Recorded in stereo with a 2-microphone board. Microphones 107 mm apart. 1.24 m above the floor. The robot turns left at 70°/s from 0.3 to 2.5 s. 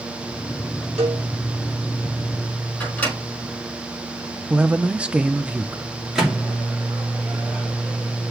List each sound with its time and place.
1.0 s a cowbell: 85° right, 4 m; by 1.2 s 80° right, 4 m
2.8 s a microwave: 10° left (ahead or behind), 5 m
4.5 s a man speaking: 10° right (ahead or behind), 0.7 m
6.2 s a microwave: 5° right (ahead or behind), 2.5 m